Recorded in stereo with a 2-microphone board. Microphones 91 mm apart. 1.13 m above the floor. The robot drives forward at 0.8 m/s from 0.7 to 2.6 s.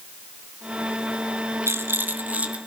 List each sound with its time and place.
1.7 s a rattle: 25° right (ahead or behind), 0.9 m; by 2.6 s 15° right (ahead or behind), 1.6 m